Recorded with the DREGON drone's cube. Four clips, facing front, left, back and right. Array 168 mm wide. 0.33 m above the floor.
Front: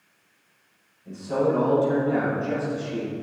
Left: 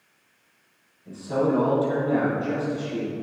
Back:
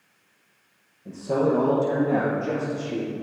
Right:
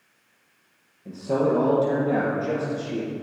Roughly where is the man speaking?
Behind right.